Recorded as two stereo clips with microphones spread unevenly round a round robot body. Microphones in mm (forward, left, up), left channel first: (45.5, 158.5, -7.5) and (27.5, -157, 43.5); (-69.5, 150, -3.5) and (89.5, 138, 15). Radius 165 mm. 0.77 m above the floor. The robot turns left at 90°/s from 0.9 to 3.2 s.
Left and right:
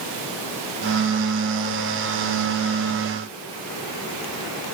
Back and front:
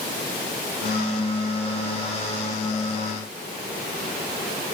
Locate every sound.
Only background noise.